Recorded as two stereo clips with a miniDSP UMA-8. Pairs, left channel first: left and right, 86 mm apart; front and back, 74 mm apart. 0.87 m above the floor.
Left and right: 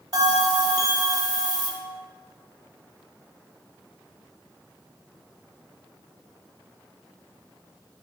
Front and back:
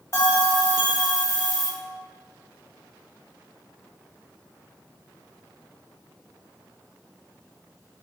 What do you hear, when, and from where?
0.1 s a bell: 50° right, 0.8 m